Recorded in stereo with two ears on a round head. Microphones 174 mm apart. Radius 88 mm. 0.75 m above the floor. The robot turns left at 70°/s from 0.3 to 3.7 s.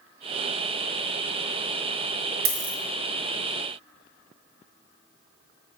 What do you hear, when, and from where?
2.5 s a dropped coin: 50° right (ahead or behind), 0.5 m; by 2.8 s 65° right (ahead or behind), 0.5 m